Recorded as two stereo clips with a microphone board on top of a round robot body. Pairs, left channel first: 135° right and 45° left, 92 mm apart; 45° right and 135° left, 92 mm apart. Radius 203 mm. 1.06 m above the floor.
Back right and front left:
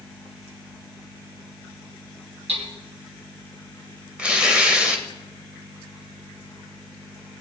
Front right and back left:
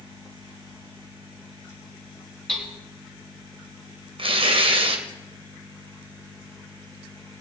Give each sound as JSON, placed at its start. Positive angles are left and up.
{"t": 2.5, "sound": "hammering", "azimuth_deg": 40, "distance_m": 2.5}
{"t": 4.2, "sound": "tearing paper", "azimuth_deg": 125, "distance_m": 2.0}